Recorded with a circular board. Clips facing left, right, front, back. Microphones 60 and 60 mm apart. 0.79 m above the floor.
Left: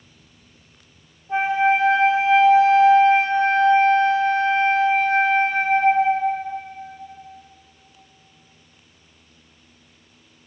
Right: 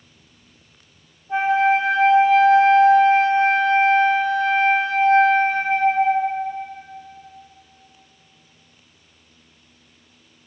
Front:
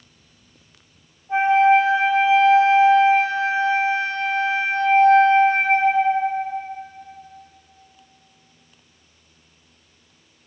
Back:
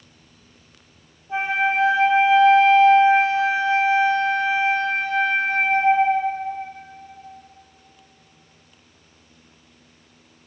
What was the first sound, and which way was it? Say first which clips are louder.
A flute: right 1 dB, front 7 dB; 30° left.